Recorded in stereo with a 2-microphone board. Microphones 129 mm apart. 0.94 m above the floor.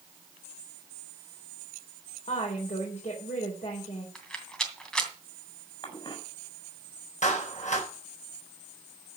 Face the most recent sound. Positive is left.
turn(degrees=75)  # may be behind; listen again after turning